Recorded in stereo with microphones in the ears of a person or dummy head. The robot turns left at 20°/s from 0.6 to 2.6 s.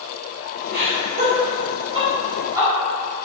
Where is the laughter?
55° right (ahead or behind), 1.1 m; by 2.7 s 20° right (ahead or behind), 1.1 m.